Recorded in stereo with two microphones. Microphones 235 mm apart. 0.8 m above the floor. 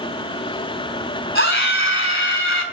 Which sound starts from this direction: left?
A scream, at 1.4 s.